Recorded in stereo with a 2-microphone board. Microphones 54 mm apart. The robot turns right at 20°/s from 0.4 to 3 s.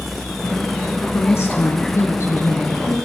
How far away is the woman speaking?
About 3.5 m.